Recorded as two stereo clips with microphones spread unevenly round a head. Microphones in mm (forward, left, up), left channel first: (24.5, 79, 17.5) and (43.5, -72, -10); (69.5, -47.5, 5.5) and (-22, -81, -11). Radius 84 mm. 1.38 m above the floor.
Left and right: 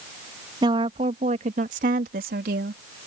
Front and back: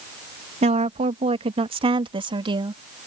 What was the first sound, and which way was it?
A woman speaking, 150° right.